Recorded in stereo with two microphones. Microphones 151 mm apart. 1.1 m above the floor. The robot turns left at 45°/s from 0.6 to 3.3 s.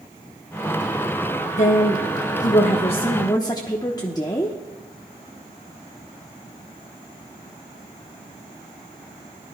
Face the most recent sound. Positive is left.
turn(degrees=30)